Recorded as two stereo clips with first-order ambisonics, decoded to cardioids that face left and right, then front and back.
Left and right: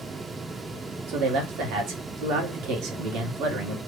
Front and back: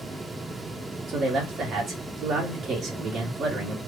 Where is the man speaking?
115° right, 1.6 m.